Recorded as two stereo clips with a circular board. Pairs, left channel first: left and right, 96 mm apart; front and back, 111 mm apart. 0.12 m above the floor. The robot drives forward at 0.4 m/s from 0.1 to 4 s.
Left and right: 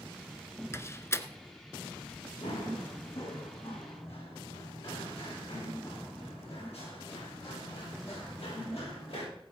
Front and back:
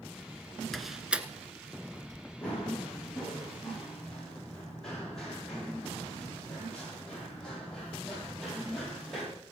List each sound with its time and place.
0.7 s a door slam: 90° left, 0.8 m; by 2.2 s 145° left, 1.0 m
2.4 s running footsteps: 80° left, 6.5 m; by 9.2 s 85° left, 13.5 m